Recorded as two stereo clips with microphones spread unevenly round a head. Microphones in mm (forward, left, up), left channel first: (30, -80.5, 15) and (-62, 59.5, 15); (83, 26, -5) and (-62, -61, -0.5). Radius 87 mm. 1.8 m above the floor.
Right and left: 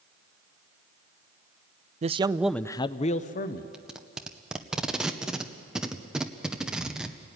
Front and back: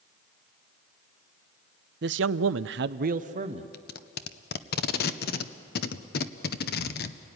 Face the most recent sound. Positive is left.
turn(degrees=35)